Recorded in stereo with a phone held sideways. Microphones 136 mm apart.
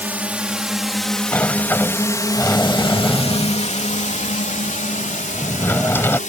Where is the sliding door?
15° left (ahead or behind).